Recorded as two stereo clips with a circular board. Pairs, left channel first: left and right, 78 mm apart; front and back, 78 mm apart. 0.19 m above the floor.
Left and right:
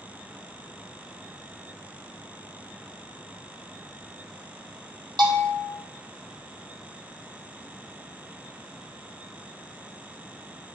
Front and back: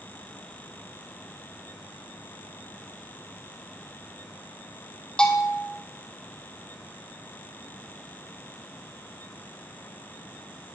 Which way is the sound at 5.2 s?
80° right.